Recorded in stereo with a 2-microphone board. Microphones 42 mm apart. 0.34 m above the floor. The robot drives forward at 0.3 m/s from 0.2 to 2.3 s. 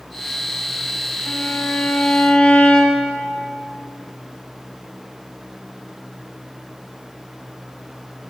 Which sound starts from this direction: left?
A violin, at 1.3 s.